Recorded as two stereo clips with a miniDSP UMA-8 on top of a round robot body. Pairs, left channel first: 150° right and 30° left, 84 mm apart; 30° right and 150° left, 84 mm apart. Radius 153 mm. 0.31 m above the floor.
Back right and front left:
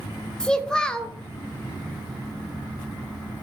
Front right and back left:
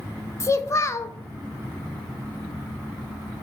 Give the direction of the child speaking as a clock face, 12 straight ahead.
2 o'clock.